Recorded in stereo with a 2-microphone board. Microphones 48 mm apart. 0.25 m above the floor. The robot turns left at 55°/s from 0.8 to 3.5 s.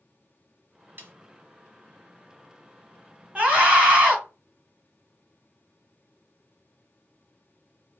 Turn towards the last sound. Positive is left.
turn(degrees=-20)  # may be behind; listen again after turning